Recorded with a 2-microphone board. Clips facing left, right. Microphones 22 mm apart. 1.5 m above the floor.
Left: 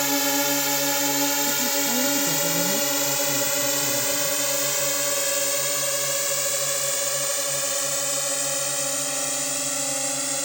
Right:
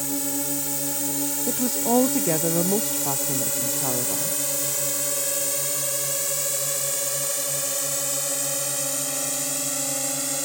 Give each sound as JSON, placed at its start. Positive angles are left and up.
{"t": 0.0, "sound": "a drone", "side_deg": 50}
{"t": 1.5, "sound": "a woman speaking", "side_deg": -55}